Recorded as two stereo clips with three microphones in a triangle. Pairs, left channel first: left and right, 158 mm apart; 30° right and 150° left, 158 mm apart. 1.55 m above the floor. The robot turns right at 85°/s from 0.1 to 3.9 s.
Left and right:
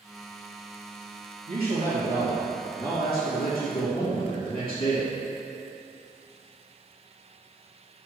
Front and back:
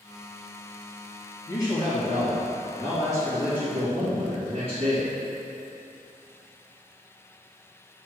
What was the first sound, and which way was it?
A man speaking, 105° right.